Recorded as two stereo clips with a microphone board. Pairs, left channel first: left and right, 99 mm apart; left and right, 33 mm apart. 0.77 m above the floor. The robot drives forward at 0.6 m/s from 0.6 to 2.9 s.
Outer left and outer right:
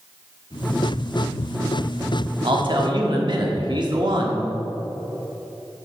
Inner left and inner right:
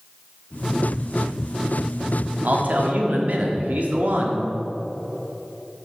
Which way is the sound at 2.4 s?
60° right (ahead or behind).